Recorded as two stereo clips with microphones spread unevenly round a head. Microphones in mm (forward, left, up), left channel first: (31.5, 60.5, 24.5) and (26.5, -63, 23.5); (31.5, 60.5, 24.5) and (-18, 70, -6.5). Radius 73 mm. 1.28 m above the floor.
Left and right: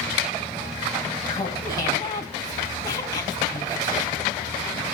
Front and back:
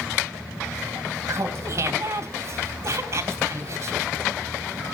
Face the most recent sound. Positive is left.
turn(degrees=155)